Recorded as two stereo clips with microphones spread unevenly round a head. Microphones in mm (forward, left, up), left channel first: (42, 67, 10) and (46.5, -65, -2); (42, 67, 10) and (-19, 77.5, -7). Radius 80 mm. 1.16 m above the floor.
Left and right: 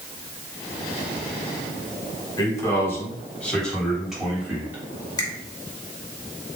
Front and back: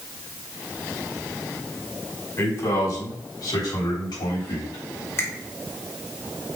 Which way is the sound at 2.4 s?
30° left.